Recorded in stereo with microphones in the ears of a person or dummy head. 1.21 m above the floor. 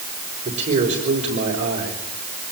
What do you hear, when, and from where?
0.5 s a man speaking: 40° right (ahead or behind), 5 m